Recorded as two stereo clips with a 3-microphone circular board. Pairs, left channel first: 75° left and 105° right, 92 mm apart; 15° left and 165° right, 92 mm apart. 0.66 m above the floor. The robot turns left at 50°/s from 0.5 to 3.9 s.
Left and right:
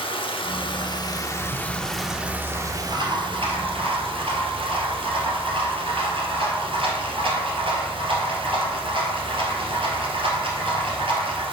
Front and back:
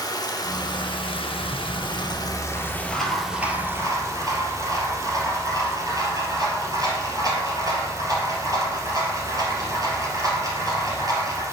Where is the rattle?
10° left, 3 m; by 11.4 s 115° right, 3 m.